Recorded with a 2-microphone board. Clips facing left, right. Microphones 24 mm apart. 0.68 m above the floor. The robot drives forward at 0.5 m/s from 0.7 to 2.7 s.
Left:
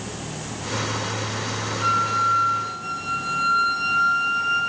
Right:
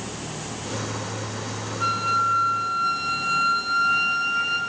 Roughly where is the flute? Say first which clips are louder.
Left 1 dB; right.